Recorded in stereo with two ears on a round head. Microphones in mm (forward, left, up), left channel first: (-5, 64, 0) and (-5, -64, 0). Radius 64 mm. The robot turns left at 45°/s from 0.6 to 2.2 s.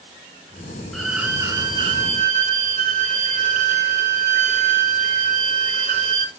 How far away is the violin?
About 2.5 m.